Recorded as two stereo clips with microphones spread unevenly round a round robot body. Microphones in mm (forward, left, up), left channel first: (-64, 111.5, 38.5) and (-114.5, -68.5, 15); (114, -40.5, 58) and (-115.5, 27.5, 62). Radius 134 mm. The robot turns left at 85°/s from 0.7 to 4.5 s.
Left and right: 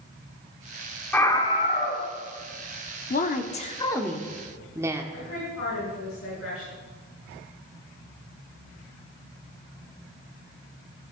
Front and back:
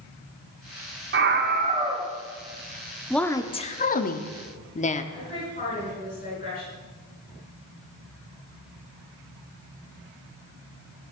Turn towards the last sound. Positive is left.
turn(degrees=40)